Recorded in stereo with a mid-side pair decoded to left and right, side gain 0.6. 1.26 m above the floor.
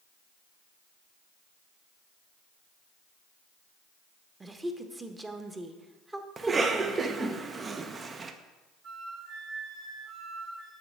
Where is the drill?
I don't hear a drill.